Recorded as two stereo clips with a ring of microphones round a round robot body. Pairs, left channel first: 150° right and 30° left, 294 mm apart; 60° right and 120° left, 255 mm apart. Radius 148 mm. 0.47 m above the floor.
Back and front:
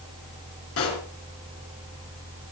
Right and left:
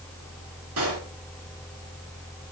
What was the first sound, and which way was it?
A pop, 165° left.